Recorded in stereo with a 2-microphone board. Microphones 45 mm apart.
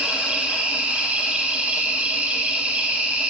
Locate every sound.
0.0 s an insect: 30° right (ahead or behind), 0.9 m